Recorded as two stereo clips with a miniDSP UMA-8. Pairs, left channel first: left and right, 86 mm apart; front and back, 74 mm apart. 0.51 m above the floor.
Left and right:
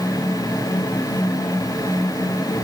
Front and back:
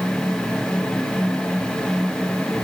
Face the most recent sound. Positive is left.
No sound to turn to.